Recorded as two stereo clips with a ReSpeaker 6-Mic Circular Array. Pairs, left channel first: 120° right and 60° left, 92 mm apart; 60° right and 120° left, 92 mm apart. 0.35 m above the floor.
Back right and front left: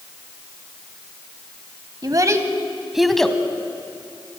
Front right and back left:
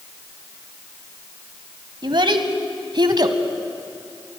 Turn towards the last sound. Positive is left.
turn(degrees=160)